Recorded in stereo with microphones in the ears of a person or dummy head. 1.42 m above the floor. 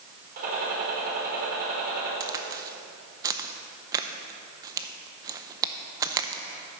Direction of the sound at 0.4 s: 50° right (ahead or behind).